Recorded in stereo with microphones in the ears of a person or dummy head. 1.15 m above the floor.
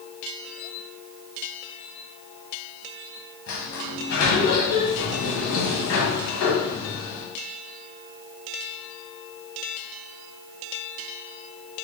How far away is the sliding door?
About 1.0 m.